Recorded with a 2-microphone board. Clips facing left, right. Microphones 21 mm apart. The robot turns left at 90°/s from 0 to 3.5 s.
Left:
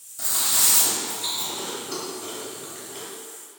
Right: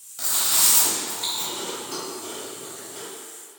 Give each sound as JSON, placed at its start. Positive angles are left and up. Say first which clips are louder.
{"t": 0.2, "sound": "chewing", "louder": "right 1 dB", "side_deg": -45, "distance_m": 1.2}